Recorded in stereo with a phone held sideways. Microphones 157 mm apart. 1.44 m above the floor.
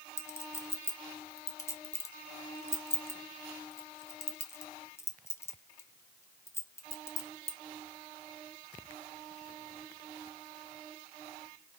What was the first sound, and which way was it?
A clink, 15° left (ahead or behind).